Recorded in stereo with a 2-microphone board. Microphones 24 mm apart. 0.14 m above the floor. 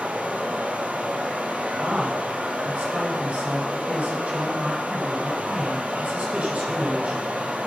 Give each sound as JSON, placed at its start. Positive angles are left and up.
{"t": 0.0, "sound": "running water", "side_deg": -75, "distance_m": 1.9}
{"t": 1.8, "sound": "a man speaking", "side_deg": -70, "distance_m": 6.5}